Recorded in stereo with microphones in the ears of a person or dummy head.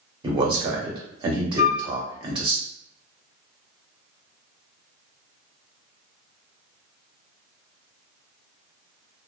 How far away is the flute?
About 1.8 m.